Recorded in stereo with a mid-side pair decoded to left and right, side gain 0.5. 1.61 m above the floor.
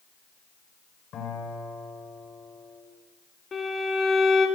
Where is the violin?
35° left, 4 m.